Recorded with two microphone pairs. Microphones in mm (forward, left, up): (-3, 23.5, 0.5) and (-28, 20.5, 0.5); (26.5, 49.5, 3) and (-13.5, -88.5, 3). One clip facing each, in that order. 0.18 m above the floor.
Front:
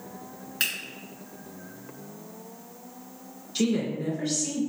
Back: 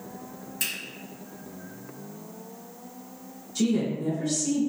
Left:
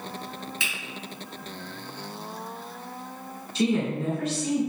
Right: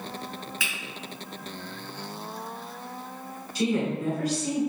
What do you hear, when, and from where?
0.6 s a finger snap: 15° left, 1.8 m
3.5 s a woman speaking: 15° left, 1.6 m